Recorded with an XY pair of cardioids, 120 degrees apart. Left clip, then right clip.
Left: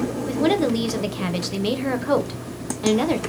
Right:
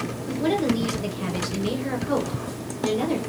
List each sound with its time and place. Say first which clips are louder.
0.3 s a woman speaking: left 3 dB; 45° left, 0.6 m